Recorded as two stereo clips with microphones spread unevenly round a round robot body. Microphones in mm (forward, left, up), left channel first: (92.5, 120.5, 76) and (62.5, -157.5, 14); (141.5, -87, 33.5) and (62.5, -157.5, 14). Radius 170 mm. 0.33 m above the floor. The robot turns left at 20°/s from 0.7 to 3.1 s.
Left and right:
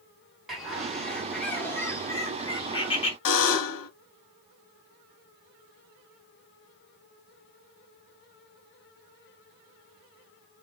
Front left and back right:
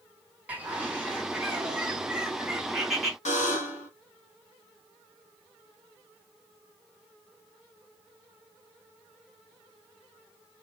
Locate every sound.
0.5 s a bird: 155° right, 1.5 m; by 3.1 s 160° left, 1.5 m
3.2 s a buzzer: 70° left, 1.2 m